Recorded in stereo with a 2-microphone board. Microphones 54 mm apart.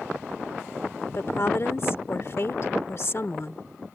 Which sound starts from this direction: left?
A woman speaking, at 1.1 s.